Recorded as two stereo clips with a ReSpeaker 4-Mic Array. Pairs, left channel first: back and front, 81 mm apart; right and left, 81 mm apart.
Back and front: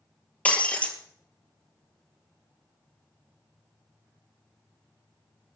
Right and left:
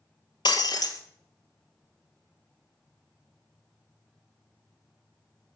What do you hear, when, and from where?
0.5 s breaking glass: 110° right, 1.9 m